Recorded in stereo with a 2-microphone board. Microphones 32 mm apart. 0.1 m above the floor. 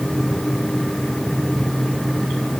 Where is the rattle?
I don't hear a rattle.